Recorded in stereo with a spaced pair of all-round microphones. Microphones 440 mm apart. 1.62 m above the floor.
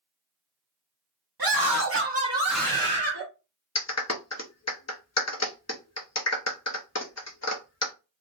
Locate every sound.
1.4 s a scream: 55° right (ahead or behind), 1.0 m; by 3.2 s 20° left (ahead or behind), 1.4 m
3.8 s a clap: 35° left (ahead or behind), 0.6 m